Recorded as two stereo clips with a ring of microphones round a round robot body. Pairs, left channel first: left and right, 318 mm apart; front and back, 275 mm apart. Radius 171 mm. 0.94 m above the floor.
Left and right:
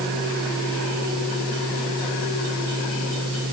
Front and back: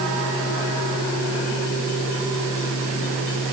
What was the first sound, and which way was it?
Only background noise.